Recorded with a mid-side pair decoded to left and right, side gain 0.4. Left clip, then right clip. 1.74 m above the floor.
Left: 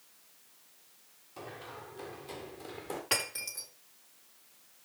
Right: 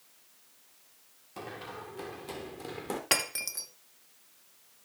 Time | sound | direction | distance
1.4 | running footsteps | 60° right | 7 m
3.1 | breaking glass | 65° right | 3 m